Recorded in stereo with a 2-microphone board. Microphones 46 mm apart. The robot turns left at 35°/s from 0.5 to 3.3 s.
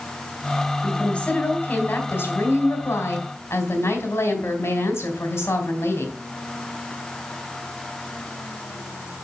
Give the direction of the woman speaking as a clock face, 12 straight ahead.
6 o'clock.